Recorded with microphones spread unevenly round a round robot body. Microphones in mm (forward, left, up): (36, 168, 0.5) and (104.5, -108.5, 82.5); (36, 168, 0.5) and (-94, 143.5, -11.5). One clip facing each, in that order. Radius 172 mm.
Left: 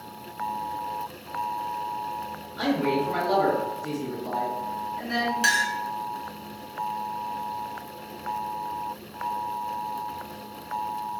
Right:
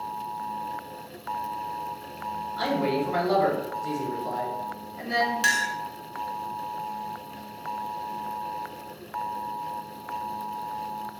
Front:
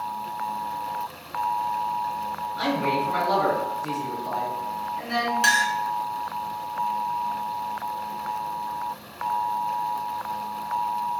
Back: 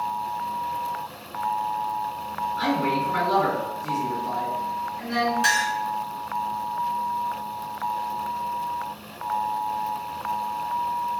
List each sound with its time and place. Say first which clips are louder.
2.6 s a man speaking: left 2 dB, even; straight ahead, 1.9 m
5.4 s a clink: left 2 dB, front 1 dB; 5° left, 1.1 m